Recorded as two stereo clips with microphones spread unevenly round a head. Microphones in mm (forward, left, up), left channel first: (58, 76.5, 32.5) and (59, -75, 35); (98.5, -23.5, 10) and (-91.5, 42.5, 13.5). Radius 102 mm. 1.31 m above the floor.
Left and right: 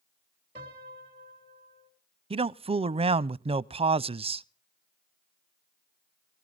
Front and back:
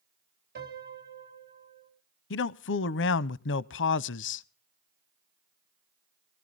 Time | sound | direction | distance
0.6 | a piano | 155° right | 3 m
2.3 | a man speaking | 40° right | 0.6 m